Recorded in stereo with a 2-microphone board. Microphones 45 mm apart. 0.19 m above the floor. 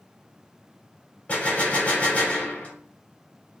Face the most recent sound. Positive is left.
turn(degrees=30)  # may be behind; listen again after turning